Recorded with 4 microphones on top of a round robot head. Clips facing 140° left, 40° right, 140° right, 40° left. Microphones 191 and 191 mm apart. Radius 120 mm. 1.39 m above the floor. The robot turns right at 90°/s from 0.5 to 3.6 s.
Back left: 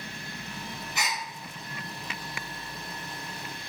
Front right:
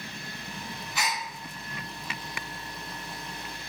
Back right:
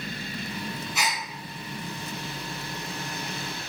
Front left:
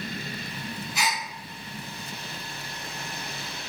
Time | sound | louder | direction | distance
0.9 | a gasp | front right 2 dB, front left 2 dB | 165° right | 1.2 m